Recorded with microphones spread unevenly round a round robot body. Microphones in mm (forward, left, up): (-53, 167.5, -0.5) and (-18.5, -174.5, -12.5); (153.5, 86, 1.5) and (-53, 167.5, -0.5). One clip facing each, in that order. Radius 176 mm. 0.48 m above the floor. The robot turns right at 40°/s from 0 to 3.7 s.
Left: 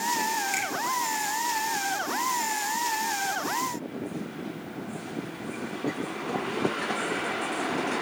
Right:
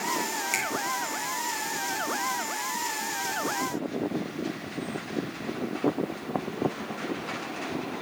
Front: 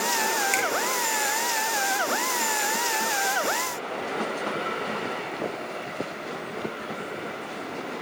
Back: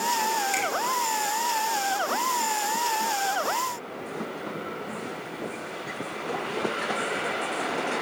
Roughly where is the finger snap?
Ahead.